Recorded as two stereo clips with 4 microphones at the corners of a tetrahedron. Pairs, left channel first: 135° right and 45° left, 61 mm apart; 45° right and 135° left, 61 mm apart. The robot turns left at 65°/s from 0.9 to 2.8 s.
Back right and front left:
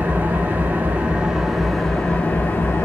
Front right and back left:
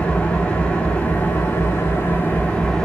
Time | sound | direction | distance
0.0 | an engine running | 10° left | 1.1 m